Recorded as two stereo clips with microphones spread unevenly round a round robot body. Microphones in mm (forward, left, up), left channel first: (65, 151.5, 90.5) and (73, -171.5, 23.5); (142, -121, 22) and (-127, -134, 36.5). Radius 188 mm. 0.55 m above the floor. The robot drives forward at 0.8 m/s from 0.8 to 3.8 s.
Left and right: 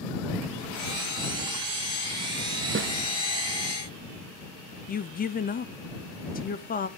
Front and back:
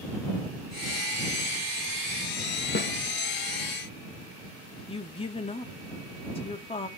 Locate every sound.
2.8 s a snare drum: 45° right, 0.8 m; by 2.9 s 55° right, 0.7 m
4.9 s a woman speaking: 30° left, 0.7 m